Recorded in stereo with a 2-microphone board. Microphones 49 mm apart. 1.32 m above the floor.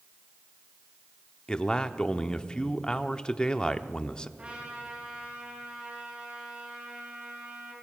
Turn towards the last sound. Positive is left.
turn(degrees=-30)  # may be behind; listen again after turning